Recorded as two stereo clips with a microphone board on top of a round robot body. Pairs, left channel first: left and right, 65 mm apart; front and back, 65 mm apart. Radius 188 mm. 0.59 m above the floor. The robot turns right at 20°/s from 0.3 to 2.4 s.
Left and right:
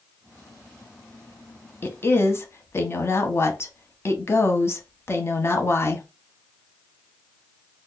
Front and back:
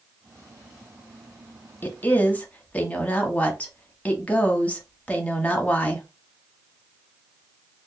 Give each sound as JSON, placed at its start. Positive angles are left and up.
{"t": 1.8, "sound": "a woman speaking", "azimuth_deg": 50, "distance_m": 0.9}